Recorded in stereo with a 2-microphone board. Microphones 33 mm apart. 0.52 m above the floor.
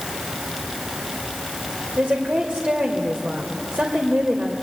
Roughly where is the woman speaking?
Right.